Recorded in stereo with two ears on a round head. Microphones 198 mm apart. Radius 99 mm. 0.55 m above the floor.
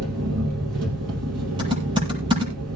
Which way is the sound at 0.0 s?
85° right.